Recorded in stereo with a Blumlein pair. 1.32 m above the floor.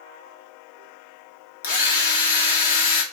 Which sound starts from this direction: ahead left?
A drill, at 1.6 s.